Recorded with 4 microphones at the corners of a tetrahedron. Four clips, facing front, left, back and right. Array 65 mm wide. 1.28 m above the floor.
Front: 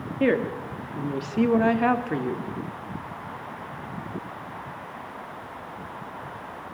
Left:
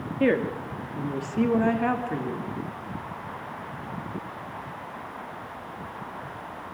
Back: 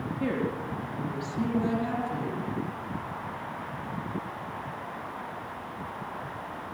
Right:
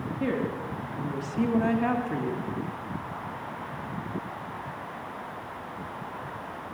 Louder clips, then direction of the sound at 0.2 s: Left 6 dB, front 8 dB; 45° left.